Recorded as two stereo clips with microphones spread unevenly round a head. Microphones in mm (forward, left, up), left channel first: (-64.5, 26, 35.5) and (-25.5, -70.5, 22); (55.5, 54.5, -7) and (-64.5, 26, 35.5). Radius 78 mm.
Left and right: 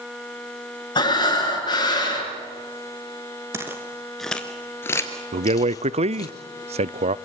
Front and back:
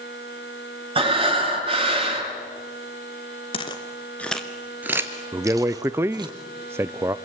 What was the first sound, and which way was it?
Breathing, 155° left.